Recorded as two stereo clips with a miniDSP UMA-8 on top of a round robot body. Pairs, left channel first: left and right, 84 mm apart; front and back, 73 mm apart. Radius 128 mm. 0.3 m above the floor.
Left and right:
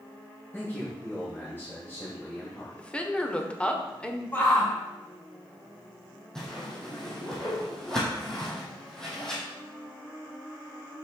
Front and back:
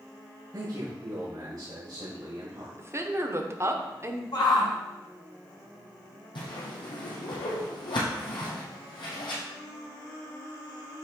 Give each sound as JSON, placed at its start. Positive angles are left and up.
{"t": 0.5, "sound": "a man speaking", "azimuth_deg": 155, "distance_m": 2.5}
{"t": 2.8, "sound": "a woman speaking", "azimuth_deg": 160, "distance_m": 1.4}
{"t": 4.3, "sound": "a shout", "azimuth_deg": 25, "distance_m": 3.0}
{"t": 6.3, "sound": "a whoosh", "azimuth_deg": 5, "distance_m": 2.5}